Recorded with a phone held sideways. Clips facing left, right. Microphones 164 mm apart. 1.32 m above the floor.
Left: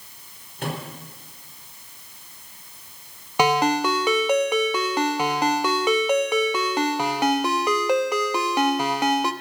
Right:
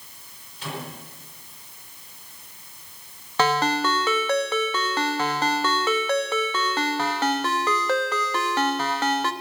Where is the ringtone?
15° left (ahead or behind), 1.0 m.